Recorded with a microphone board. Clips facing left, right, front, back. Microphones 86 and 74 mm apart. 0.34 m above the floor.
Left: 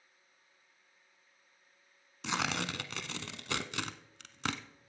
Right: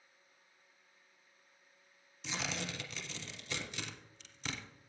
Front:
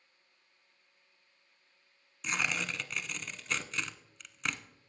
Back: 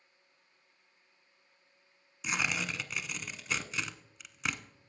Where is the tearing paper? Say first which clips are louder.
Left 6 dB, even; 95° left, 0.9 m.